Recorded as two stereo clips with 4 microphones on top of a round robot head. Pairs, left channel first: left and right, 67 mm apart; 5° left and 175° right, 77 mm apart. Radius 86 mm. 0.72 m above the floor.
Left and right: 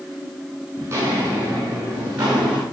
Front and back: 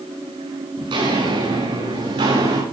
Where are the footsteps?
155° right, 6.5 m; by 2.6 s 170° right, 4.5 m.